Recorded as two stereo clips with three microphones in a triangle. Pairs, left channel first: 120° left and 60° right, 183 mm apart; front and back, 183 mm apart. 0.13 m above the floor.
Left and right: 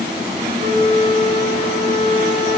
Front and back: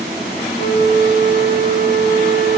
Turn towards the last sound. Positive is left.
turn(degrees=-50)